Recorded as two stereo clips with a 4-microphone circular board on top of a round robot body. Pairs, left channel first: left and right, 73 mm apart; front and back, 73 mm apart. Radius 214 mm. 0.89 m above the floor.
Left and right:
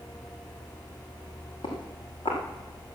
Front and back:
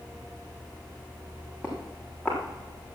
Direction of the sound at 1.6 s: 105° left.